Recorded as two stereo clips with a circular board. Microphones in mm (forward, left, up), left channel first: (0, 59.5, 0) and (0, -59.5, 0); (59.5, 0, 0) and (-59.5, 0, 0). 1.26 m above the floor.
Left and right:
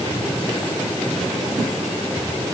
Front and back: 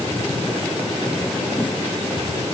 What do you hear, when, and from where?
Only background noise.